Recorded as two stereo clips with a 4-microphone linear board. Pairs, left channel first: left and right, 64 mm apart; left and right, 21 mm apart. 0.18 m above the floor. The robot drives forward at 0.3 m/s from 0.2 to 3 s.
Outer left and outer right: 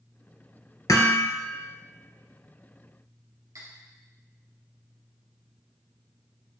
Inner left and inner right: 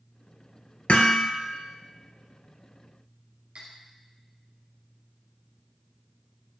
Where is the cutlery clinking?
70° right (ahead or behind), 2.5 m.